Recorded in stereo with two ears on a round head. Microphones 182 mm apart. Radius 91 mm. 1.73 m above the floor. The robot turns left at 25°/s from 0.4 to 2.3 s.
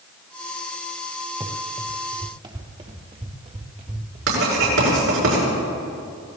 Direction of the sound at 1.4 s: 20° right (ahead or behind).